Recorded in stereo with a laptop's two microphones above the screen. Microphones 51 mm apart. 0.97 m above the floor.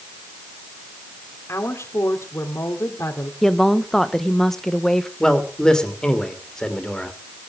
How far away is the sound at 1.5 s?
About 2.5 m.